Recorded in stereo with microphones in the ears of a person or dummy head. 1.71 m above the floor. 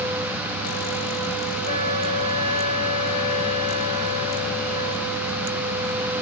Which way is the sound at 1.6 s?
80° right.